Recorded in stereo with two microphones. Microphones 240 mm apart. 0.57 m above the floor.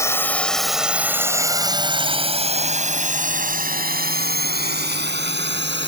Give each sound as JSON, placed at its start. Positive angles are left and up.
{"t": 0.0, "sound": "a drone", "side_deg": 10}